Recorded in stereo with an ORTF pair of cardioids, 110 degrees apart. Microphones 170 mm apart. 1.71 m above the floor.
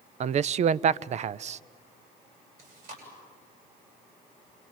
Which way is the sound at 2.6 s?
55° right.